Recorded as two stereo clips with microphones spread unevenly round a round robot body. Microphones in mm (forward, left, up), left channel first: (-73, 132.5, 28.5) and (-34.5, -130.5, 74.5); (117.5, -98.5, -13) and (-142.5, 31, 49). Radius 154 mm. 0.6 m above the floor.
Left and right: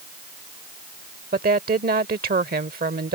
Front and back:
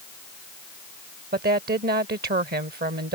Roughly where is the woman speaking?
Behind right.